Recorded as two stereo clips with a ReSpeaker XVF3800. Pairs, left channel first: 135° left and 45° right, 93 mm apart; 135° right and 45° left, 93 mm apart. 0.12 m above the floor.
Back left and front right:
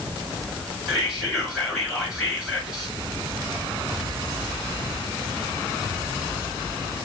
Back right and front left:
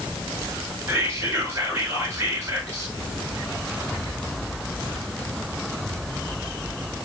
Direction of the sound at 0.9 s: 35° left.